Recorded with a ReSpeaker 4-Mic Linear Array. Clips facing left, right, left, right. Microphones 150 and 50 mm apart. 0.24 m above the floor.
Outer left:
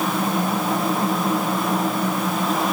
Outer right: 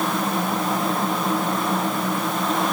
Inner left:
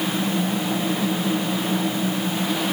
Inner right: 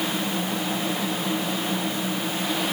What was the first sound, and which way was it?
Only background noise.